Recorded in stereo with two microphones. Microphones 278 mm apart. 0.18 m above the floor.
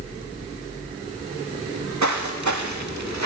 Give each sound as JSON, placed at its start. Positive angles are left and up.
{"t": 1.7, "sound": "footsteps", "side_deg": -80, "distance_m": 2.0}